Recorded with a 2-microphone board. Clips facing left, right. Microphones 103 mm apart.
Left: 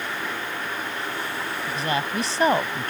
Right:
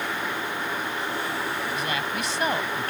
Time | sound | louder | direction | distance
1.7 | a woman speaking | left 2 dB | 35° left (ahead or behind) | ?